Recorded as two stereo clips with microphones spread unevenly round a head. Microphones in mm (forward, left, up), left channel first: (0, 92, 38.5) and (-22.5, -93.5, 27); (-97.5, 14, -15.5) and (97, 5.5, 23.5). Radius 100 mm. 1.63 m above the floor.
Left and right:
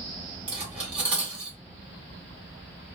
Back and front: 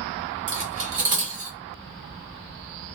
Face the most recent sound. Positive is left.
turn(degrees=-10)